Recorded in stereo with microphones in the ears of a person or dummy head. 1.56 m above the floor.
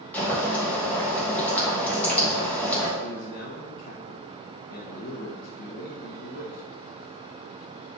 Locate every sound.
0.1 s boiling: 10° left (ahead or behind), 2 m
3.0 s a man speaking: 50° left (ahead or behind), 1.2 m